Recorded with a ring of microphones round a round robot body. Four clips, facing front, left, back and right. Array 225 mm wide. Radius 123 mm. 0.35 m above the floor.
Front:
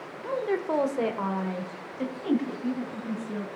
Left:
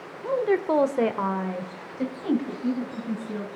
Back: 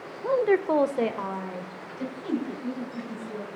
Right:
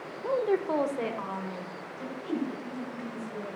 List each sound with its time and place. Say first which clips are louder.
0.2 s a woman speaking: left 4 dB, back 6 dB; 175° left, 1.1 m; by 3.5 s 65° left, 3.5 m